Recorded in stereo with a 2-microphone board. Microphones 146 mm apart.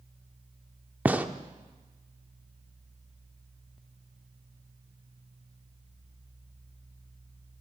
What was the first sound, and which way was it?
A gunshot, 10° right (ahead or behind).